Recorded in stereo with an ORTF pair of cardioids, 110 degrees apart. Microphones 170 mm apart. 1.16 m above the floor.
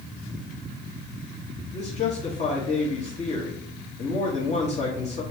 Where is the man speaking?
40° left, 1.3 m.